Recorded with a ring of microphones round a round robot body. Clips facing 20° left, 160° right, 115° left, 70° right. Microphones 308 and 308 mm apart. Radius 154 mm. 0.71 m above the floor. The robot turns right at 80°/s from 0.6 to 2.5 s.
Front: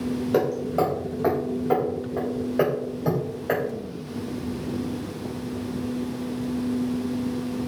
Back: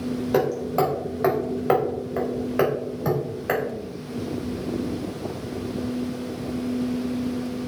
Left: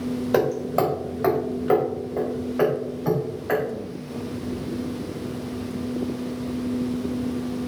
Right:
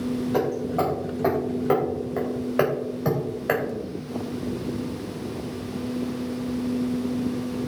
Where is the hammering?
115° left, 3 m; by 3.6 s 90° right, 3 m.